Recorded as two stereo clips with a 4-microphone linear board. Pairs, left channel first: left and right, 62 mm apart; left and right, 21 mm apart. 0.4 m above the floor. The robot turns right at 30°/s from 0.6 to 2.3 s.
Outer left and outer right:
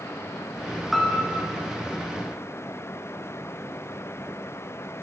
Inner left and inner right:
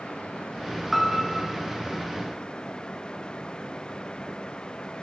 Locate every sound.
0.9 s a piano: centre (ahead or behind), 3 m; by 1.5 s 15° left (ahead or behind), 3 m